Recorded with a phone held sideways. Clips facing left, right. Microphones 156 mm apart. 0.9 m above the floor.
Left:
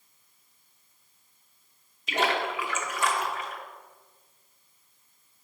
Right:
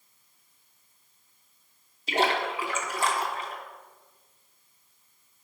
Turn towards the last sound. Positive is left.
turn(degrees=-30)  # may be behind; listen again after turning